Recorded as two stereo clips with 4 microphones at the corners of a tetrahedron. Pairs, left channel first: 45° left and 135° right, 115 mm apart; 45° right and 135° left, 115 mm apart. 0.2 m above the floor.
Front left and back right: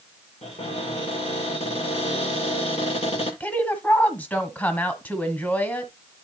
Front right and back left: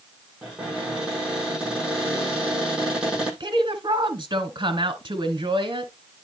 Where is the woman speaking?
115° left, 1.5 m.